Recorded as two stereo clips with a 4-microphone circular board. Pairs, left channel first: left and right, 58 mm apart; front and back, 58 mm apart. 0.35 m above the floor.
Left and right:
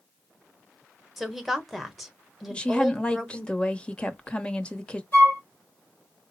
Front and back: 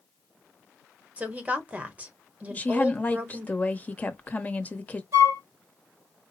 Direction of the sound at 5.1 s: 145° left.